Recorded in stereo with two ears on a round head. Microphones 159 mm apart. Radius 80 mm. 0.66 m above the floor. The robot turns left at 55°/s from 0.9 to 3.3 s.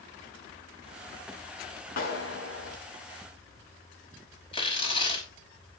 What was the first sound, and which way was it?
A clap, 125° left.